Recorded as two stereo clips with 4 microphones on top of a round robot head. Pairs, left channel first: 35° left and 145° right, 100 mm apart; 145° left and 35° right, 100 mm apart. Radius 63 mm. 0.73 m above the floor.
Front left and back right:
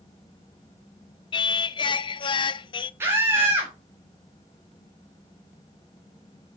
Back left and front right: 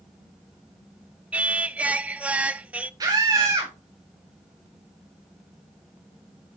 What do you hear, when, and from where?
1.3 s singing: 35° left, 0.5 m
3.0 s a scream: 80° right, 1.8 m